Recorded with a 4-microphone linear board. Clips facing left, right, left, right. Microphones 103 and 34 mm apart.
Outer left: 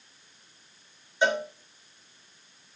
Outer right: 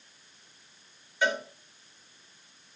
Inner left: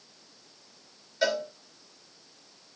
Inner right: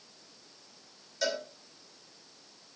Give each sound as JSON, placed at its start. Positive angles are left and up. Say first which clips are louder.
{"t": 1.2, "sound": "a cowbell", "louder": "outer left 3 dB, inner left 5 dB", "side_deg": 25, "distance_m": 2.5}